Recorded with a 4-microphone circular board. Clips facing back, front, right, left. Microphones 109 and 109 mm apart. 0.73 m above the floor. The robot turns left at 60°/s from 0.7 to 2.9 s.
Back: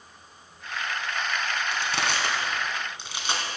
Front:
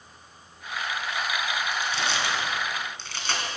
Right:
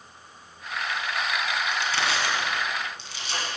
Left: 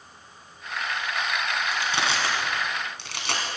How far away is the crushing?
About 1.9 m.